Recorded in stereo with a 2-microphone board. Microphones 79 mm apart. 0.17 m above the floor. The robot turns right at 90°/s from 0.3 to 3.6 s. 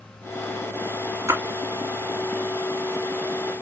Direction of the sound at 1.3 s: 35° right (ahead or behind).